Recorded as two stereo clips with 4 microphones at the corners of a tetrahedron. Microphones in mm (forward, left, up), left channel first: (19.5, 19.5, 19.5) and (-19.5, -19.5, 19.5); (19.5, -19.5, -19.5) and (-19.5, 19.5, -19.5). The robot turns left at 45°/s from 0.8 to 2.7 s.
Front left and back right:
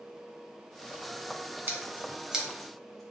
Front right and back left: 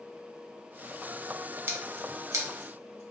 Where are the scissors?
175° left, 0.7 m; by 3.0 s 130° left, 0.7 m.